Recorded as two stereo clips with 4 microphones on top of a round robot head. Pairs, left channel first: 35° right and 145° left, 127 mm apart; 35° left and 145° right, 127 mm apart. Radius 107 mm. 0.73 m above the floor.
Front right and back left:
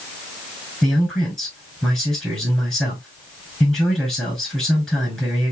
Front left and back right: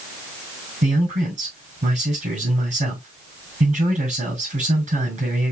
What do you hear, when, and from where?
0.8 s a man speaking: 120° right, 5 m